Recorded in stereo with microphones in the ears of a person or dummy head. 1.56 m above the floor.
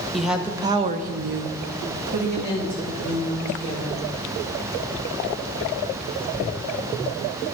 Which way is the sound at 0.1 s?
Centre (ahead or behind).